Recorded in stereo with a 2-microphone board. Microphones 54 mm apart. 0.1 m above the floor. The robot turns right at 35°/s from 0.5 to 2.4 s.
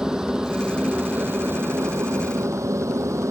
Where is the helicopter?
165° right; by 3.3 s 100° right.